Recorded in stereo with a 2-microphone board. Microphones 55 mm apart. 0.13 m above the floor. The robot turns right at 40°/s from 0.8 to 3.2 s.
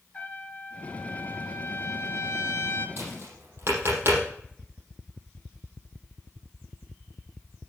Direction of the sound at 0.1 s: 30° left.